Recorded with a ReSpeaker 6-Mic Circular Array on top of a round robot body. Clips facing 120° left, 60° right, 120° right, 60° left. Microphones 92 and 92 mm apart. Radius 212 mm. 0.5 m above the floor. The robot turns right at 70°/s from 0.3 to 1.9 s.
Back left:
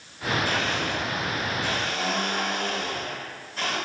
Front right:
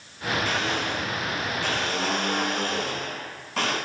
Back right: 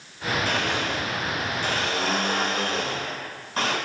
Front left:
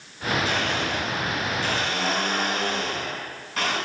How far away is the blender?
About 7.5 m.